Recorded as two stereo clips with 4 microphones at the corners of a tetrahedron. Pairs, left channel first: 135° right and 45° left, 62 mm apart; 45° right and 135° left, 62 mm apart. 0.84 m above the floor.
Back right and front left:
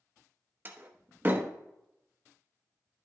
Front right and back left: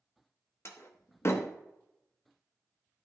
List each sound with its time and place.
0.7 s a door slam: 10° right, 0.9 m